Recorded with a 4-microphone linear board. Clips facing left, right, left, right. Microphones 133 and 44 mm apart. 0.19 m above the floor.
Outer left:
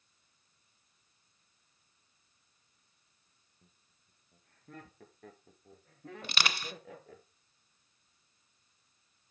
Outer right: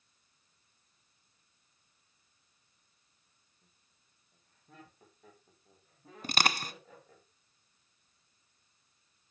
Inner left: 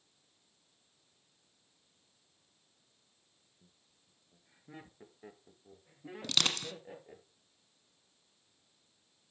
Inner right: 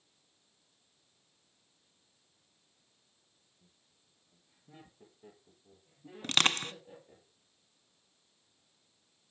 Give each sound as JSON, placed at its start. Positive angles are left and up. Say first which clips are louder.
{"t": 3.6, "sound": "laughter", "louder": "outer left 6 dB, inner left 2 dB", "side_deg": 55, "distance_m": 2.5}
{"t": 6.2, "sound": "crushing", "louder": "outer right 5 dB, inner right 4 dB", "side_deg": -40, "distance_m": 0.9}